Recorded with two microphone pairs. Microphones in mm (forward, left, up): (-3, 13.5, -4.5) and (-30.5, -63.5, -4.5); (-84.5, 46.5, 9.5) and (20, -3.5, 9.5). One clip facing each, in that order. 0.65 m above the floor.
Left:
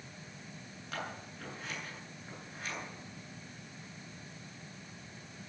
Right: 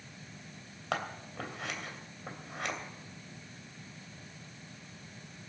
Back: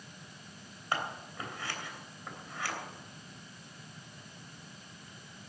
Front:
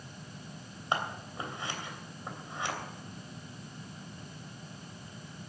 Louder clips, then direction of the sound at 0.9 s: Right 6 dB, front 2 dB; 95° right.